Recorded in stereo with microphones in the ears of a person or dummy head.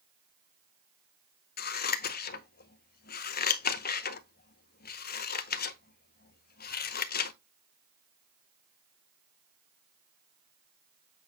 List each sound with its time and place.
1.6 s scissors: 45° left (ahead or behind), 0.7 m